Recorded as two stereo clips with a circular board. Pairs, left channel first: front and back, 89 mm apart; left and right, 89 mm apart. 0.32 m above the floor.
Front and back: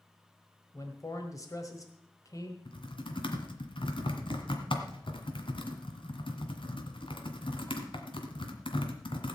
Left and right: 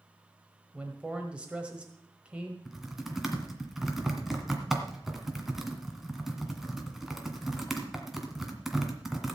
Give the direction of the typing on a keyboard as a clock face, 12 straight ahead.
12 o'clock.